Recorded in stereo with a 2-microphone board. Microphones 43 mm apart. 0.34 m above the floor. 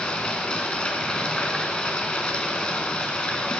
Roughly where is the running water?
Left.